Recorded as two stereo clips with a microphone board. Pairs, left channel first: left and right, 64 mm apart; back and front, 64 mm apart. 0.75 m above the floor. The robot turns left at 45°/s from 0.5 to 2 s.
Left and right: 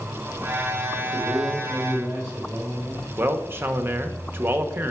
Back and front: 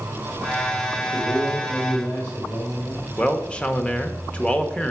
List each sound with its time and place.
1.0 s a man speaking: 105° right, 1.8 m; by 3.1 s 155° right, 1.8 m
3.2 s a man speaking: 120° right, 0.9 m